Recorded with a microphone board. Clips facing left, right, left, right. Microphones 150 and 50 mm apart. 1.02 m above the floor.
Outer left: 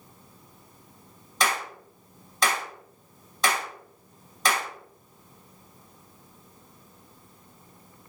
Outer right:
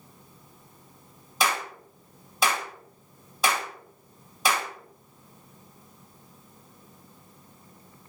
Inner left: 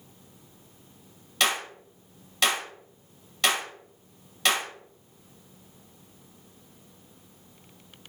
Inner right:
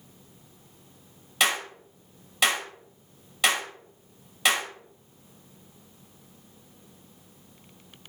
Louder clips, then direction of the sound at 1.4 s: Even, inner right 1 dB; 5° right (ahead or behind).